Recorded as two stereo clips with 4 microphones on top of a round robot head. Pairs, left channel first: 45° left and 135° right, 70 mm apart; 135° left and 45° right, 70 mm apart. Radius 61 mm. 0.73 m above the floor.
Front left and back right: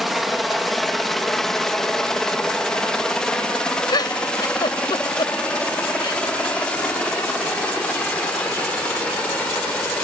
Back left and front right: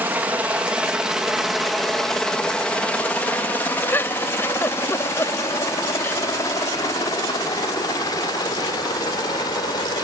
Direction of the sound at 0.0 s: 50° right.